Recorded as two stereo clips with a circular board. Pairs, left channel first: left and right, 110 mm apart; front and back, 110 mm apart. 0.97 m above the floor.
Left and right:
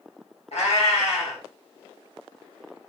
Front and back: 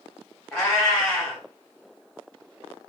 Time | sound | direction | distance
0.5 | a cat meowing | 85° left | 1.4 m